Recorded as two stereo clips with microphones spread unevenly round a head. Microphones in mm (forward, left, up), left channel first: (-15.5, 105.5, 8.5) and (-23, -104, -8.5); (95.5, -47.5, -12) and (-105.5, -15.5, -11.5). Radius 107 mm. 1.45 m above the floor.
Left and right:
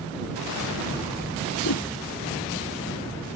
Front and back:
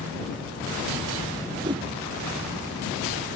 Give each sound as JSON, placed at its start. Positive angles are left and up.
{"t": 1.6, "sound": "a whoosh", "azimuth_deg": 100}